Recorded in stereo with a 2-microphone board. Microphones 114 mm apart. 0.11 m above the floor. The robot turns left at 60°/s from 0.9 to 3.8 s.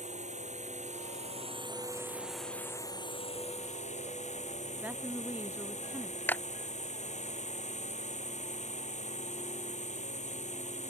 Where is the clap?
15° left (ahead or behind).